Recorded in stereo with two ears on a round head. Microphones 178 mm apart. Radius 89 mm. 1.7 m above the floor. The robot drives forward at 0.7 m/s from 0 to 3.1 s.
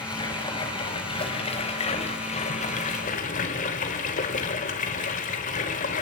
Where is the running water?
25° left (ahead or behind), 4.5 m; by 6.0 s 40° left (ahead or behind), 2.5 m.